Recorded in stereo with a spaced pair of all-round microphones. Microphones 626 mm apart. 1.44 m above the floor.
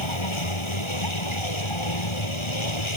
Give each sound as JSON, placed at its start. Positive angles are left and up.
{"t": 0.0, "sound": "a vehicle", "side_deg": 50}